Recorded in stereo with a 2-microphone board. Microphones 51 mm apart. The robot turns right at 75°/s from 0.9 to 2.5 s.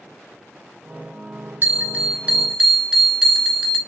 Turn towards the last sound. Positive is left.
turn(degrees=-20)